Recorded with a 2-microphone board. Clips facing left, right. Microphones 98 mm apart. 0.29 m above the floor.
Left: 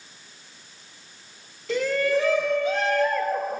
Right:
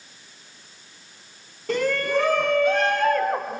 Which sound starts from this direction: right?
A shout, at 1.7 s.